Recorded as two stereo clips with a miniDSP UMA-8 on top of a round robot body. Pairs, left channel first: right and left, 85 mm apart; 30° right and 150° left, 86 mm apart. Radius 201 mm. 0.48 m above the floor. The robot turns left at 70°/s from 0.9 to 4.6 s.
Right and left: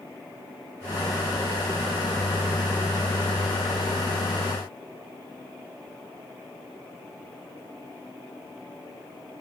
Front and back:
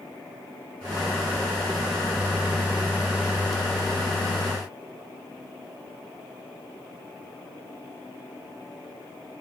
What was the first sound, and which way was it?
Only background noise.